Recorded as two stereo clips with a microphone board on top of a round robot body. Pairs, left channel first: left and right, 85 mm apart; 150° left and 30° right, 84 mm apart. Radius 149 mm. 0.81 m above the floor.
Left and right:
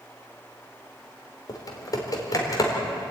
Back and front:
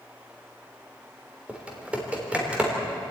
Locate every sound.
1.5 s typing on a keyboard: 45° left, 3.5 m